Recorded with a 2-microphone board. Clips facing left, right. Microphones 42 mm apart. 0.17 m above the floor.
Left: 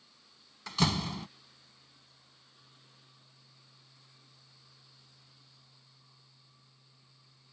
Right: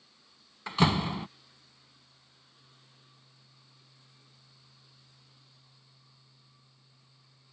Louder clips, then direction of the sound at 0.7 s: Right 5 dB; 25° right (ahead or behind).